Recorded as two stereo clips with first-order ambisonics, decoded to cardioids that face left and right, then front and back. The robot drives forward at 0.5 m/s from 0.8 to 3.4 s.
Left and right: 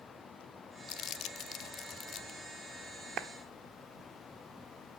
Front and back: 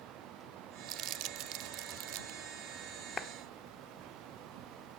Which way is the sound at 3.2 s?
60° right.